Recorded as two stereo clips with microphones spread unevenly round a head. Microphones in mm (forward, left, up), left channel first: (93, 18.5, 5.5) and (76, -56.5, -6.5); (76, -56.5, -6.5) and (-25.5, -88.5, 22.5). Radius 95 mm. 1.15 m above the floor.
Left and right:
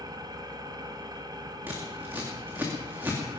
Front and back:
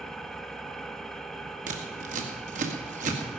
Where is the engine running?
70° right, 1.4 m.